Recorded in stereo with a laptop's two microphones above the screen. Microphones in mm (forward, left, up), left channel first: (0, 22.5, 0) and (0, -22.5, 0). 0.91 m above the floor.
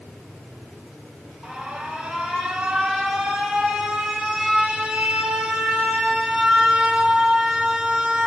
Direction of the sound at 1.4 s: 15° right (ahead or behind).